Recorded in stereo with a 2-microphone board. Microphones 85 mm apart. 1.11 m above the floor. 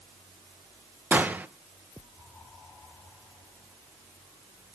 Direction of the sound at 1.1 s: 20° right (ahead or behind).